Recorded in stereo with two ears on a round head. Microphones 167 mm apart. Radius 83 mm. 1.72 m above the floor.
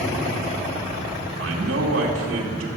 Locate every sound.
1.4 s a man speaking: 80° right, 3 m